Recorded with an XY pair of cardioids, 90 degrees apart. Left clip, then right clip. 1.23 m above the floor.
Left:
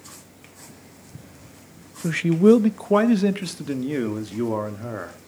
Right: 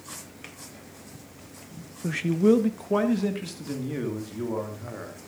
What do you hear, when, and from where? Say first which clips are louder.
2.0 s a man speaking: left 5 dB; 40° left, 0.7 m; by 5.2 s 65° left, 3 m